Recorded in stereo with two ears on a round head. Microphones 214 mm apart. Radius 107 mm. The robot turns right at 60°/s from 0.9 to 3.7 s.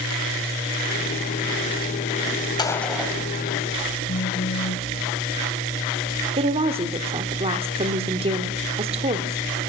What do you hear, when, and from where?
2.6 s a gunshot: 160° left, 3 m; by 3.2 s 165° right, 3 m
4.1 s a phone buzzing: 40° left (ahead or behind), 0.9 m
6.4 s a woman speaking: 25° right (ahead or behind), 1.1 m